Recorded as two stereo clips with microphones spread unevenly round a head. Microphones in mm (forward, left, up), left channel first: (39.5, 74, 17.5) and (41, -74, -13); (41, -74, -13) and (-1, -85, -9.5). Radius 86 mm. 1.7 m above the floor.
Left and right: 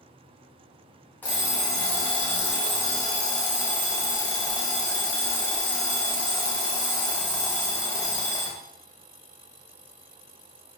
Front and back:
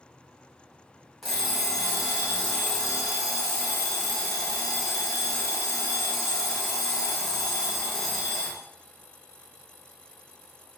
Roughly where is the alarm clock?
Left.